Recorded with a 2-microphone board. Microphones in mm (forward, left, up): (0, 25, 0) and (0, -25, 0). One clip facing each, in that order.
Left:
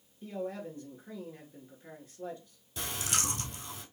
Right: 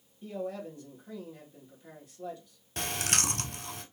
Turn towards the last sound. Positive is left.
turn(degrees=-65)  # may be behind; listen again after turning